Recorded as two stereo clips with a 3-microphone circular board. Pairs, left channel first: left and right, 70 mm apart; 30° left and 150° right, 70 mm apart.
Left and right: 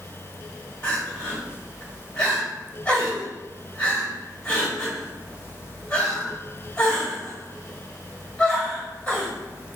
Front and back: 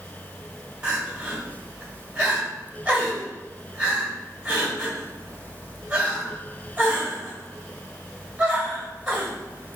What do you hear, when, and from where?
0.8 s crying: 155° left, 1.5 m